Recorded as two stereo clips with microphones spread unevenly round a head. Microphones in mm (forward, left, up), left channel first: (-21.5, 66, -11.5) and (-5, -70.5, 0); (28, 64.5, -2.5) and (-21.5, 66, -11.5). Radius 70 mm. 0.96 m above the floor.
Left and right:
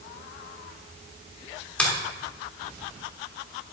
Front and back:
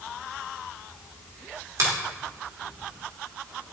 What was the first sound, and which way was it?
A finger snap, straight behind.